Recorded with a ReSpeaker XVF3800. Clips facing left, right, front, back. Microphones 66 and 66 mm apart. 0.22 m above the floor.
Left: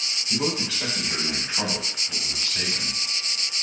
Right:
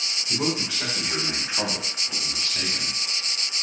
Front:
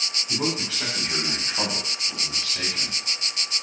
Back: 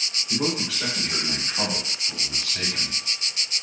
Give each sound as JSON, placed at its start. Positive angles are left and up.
{"t": 0.3, "sound": "a man speaking", "azimuth_deg": -30, "distance_m": 1.4}